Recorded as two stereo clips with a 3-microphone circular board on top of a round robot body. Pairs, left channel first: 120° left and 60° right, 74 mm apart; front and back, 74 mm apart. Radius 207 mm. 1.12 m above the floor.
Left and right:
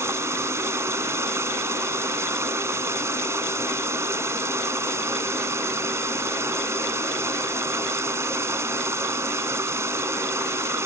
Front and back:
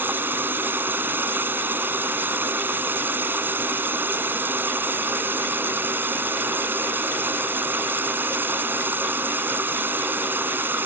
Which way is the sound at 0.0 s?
115° right.